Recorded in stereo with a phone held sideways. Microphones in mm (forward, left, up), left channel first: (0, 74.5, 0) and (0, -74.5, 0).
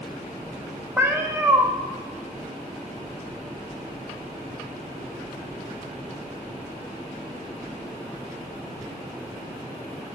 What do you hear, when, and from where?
1.0 s a cat meowing: 15° right (ahead or behind), 0.7 m